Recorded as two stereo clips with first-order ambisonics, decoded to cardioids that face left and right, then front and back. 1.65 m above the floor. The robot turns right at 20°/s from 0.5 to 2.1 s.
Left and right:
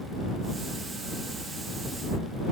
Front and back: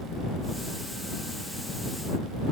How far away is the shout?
No shout in this recording.